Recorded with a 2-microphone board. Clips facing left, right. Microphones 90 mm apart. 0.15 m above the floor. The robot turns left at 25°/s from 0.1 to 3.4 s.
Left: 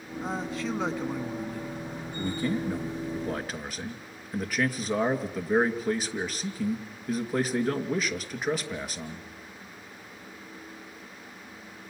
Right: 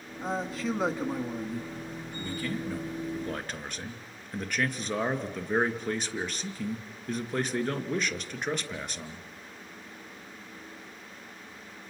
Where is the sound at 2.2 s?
35° left, 2 m; by 9.3 s 5° left, 2 m.